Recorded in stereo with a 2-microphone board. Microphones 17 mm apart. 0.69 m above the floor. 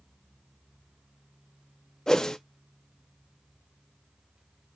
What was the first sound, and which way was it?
A whoosh, 30° left (ahead or behind).